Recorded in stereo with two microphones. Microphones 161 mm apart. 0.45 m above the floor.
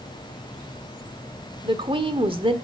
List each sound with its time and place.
1.6 s a woman speaking: 30° right (ahead or behind), 1.4 m